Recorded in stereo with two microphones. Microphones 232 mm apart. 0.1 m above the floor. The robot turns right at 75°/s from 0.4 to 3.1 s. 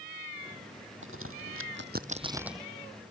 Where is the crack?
60° right (ahead or behind); by 2.7 s 5° left (ahead or behind).